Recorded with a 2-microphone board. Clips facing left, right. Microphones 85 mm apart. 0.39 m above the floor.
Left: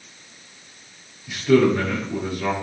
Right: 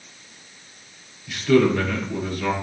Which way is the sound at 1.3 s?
10° left (ahead or behind).